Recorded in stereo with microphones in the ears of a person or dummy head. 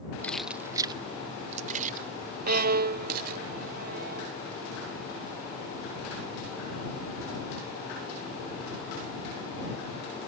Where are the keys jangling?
15° left (ahead or behind); by 3.4 s 50° right (ahead or behind).